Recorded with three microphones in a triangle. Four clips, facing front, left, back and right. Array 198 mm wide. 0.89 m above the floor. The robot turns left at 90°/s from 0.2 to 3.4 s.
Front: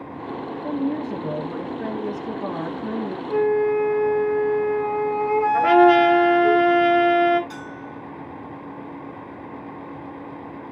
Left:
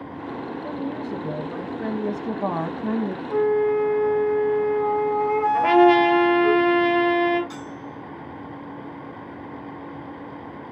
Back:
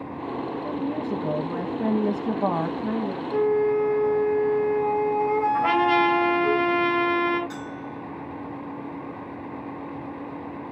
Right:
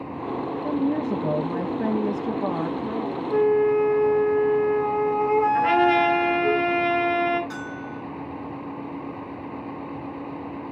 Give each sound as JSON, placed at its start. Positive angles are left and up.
{"t": 0.6, "sound": "a woman speaking", "azimuth_deg": -50, "distance_m": 1.2}
{"t": 3.3, "sound": "a flute", "azimuth_deg": -35, "distance_m": 8.0}
{"t": 5.5, "sound": "a trumpet", "azimuth_deg": 20, "distance_m": 4.0}
{"t": 7.5, "sound": "a bell", "azimuth_deg": -45, "distance_m": 7.5}